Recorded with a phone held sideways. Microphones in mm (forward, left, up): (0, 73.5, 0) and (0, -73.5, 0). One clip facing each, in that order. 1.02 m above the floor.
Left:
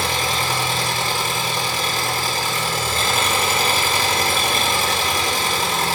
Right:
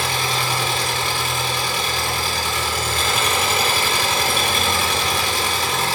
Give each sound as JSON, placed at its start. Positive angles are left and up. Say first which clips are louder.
{"t": 0.0, "sound": "an engine running", "louder": "left 1 dB", "side_deg": 40, "distance_m": 1.7}